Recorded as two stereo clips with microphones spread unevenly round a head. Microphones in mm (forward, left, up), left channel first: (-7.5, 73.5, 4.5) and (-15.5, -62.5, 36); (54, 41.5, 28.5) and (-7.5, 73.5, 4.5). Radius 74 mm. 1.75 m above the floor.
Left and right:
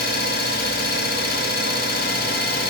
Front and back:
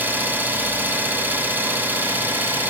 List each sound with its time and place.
0.0 s an engine running: 80° left, 1.4 m